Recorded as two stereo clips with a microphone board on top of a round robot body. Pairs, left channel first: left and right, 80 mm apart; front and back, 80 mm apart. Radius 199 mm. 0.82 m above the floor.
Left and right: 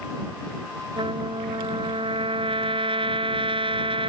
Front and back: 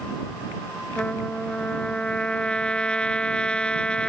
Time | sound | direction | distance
1.0 | a trumpet | 80° right | ?